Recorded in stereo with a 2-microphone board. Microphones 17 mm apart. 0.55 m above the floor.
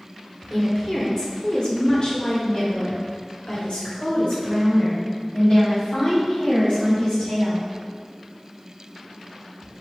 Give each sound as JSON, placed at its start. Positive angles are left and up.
{"t": 0.5, "sound": "a woman speaking", "side_deg": 20, "distance_m": 1.8}